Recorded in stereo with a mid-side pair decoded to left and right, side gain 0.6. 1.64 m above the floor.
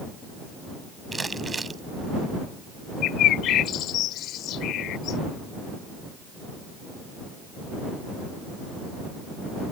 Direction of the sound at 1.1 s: 20° right.